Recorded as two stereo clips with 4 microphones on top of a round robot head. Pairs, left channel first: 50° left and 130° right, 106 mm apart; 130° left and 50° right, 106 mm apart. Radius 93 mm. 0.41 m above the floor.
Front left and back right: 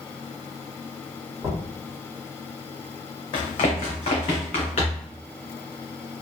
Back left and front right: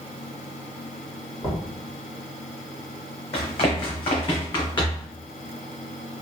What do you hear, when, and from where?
1.4 s knocking: 175° left, 1.6 m
3.3 s running footsteps: 95° left, 1.3 m; by 5.1 s 80° left, 2 m